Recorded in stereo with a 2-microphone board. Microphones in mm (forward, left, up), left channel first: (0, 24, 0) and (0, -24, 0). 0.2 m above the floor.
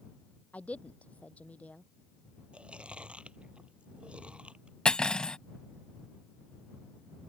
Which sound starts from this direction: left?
A woman speaking, at 0.5 s.